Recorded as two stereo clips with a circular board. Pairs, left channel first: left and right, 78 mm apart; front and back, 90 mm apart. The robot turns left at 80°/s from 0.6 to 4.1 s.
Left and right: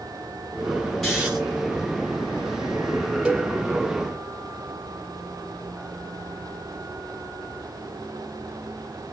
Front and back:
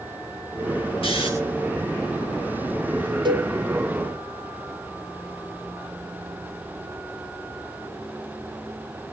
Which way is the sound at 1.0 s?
Straight ahead.